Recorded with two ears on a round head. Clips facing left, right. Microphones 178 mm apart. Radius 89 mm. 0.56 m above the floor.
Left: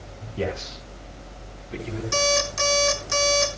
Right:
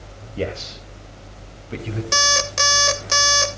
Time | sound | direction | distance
0.4 | a man speaking | 45° right (ahead or behind) | 3 m
2.1 | an alarm clock | 75° right (ahead or behind) | 1.5 m